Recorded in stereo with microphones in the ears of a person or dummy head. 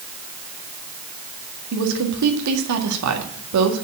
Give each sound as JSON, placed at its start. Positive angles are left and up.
{"t": 1.7, "sound": "a woman speaking", "side_deg": -85, "distance_m": 1.9}